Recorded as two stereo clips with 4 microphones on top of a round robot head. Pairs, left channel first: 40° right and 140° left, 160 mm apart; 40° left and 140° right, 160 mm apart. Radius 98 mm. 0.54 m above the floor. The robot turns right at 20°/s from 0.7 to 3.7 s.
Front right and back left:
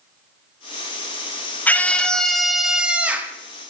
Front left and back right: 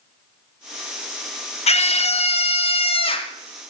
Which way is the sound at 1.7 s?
35° left.